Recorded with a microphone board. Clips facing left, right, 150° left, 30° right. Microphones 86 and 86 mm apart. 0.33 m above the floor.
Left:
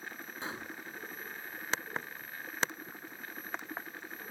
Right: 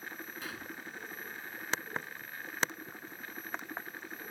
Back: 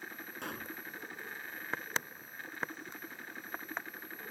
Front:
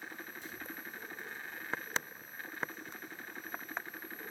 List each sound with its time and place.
0.4 s a pop: 150° left